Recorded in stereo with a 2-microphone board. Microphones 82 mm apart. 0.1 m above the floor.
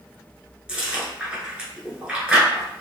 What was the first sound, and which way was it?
Chewing, 10° right (ahead or behind).